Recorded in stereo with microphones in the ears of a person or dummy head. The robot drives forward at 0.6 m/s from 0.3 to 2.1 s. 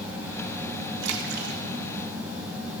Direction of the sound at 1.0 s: 65° right (ahead or behind).